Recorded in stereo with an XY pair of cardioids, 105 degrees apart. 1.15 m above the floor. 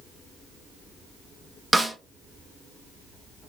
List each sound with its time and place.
1.7 s a snare drum: 5° right, 0.6 m